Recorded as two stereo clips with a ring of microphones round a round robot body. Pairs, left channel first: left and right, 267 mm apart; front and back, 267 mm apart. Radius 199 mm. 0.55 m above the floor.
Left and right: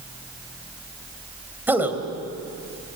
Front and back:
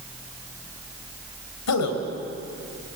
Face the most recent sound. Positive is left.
turn(degrees=-5)